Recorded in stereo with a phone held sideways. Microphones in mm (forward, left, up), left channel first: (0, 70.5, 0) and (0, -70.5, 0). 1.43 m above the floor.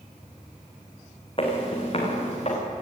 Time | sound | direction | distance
1.4 | footsteps | 40° left (ahead or behind) | 5 m